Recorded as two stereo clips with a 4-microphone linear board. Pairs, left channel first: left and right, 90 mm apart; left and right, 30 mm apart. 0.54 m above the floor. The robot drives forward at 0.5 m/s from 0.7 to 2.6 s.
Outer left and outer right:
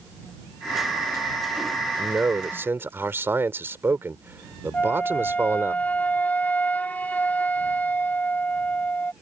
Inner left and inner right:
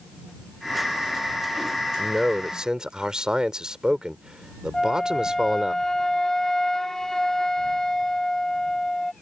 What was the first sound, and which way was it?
A man speaking, 25° right (ahead or behind).